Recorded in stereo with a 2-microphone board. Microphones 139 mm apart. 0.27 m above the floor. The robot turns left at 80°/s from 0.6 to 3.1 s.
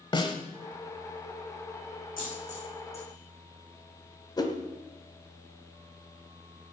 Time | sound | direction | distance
0.1 | a snare drum | 35° left (ahead or behind) | 1.3 m
2.2 | a dropped coin | 85° left | 6 m
4.4 | a whoosh | 30° left (ahead or behind) | 1.3 m